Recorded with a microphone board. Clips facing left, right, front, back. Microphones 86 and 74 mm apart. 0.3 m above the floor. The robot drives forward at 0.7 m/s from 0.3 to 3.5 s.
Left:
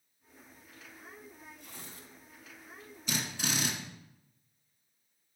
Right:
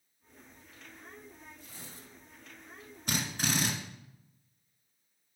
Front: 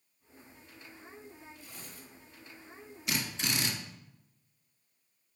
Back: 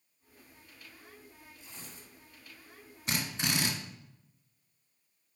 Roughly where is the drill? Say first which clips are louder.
Right 2 dB, back 1 dB; behind right.